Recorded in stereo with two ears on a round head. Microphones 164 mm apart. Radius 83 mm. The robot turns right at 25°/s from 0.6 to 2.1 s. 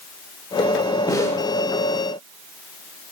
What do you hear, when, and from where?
1.1 s a snare drum: 20° left (ahead or behind), 1.0 m; by 1.4 s 10° left (ahead or behind), 1.0 m